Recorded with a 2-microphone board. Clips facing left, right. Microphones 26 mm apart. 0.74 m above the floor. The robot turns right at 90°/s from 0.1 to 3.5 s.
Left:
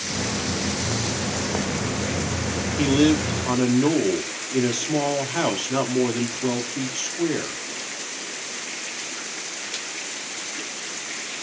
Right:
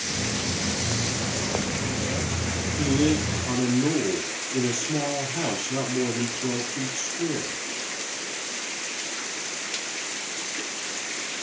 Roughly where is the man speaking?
Ahead left.